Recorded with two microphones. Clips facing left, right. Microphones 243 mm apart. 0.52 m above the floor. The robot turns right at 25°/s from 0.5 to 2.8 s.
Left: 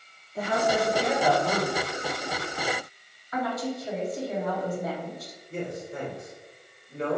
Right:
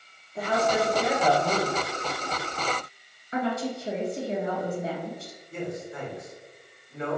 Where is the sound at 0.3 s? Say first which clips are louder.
Even; centre (ahead or behind), 0.9 m; by 1.9 s 10° right (ahead or behind), 0.9 m.